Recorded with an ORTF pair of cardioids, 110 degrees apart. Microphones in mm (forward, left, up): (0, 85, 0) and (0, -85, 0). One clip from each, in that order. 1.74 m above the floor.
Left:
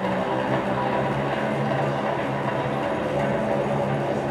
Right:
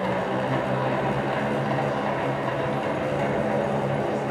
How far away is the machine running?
About 1.2 m.